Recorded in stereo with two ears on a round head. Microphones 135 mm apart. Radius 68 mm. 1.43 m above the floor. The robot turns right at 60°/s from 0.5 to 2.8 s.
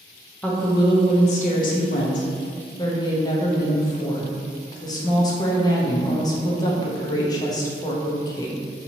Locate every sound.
0.4 s a woman speaking: 10° left, 0.5 m; by 8.6 s 150° left, 0.5 m